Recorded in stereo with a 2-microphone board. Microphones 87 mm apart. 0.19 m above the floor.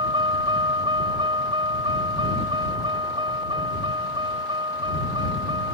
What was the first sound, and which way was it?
A vehicle, 65° right (ahead or behind).